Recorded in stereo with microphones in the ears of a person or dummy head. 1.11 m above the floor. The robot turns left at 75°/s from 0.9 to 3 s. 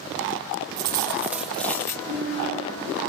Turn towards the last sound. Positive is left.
turn(degrees=-120)